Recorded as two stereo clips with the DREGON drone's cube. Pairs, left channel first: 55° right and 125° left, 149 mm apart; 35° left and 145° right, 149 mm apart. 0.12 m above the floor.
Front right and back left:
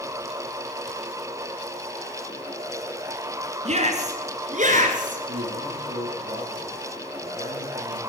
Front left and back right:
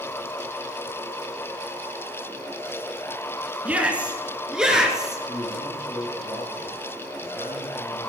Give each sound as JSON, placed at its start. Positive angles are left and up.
{"t": 3.6, "sound": "a shout", "azimuth_deg": 135, "distance_m": 2.5}
{"t": 5.3, "sound": "a man speaking", "azimuth_deg": 100, "distance_m": 5.0}